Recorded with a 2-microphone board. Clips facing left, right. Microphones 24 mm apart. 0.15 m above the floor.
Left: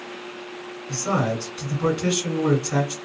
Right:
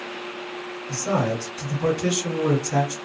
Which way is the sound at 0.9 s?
30° left (ahead or behind).